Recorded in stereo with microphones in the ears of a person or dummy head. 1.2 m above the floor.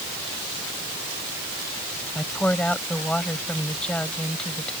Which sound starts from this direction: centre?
A woman speaking, at 2.1 s.